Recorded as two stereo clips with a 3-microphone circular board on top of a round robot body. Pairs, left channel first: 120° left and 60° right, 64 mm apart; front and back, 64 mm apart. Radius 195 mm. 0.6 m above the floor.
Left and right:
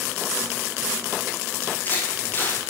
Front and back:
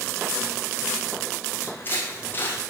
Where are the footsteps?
60° left, 2.5 m.